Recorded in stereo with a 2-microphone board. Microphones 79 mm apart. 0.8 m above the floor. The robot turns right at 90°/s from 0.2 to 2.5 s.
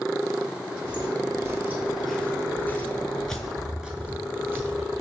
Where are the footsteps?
65° right (ahead or behind), 1.7 m; by 5.0 s 35° right (ahead or behind), 1.0 m.